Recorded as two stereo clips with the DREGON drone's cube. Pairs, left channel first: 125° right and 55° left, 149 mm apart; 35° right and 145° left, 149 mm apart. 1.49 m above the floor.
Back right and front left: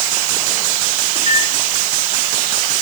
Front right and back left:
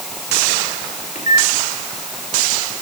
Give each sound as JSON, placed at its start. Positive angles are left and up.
{"t": 1.1, "sound": "a microwave", "azimuth_deg": 0, "distance_m": 5.0}